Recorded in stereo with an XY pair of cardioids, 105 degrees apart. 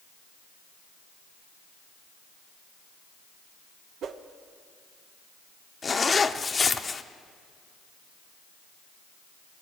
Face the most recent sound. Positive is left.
turn(degrees=30)